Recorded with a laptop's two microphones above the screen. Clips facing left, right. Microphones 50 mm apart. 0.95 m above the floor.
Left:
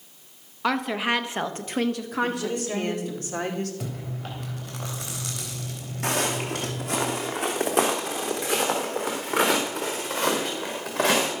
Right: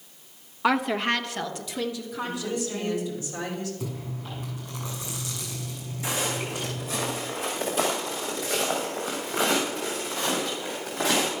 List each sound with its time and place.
0.6 s a woman speaking: 5° right (ahead or behind), 1.5 m; by 3.2 s 65° left (ahead or behind), 2.5 m
2.2 s a woman speaking: 55° left (ahead or behind), 3 m
3.8 s chewing: 85° left, 3.5 m
6.0 s footsteps: 60° left (ahead or behind), 2.5 m; by 11.3 s 80° left, 5 m